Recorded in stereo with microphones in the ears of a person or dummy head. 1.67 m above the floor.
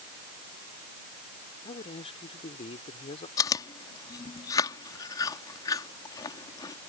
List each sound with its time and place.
1.6 s a man speaking: 30° left (ahead or behind)
3.4 s chewing: 20° left (ahead or behind)